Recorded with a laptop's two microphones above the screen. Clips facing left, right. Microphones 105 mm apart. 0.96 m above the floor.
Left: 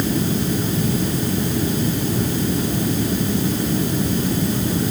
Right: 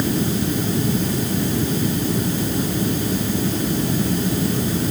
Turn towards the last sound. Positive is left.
No sound to turn to.